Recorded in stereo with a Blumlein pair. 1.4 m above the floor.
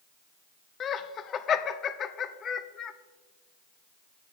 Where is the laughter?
25° left, 0.7 m.